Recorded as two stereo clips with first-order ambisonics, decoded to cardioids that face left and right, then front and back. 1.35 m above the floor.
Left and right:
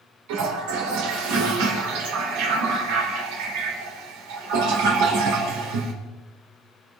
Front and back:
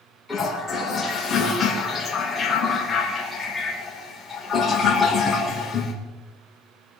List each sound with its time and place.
0.3 s a toilet flushing: 80° right, 4 m